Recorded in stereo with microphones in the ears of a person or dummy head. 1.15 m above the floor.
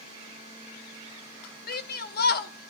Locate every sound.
1.7 s a shout: 45° left (ahead or behind), 0.7 m